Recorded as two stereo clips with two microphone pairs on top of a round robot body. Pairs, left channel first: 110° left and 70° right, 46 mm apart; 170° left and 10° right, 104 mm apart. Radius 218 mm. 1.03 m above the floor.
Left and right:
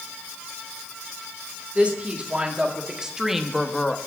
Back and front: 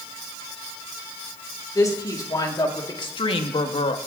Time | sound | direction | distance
1.8 | a woman speaking | 130° right | 2 m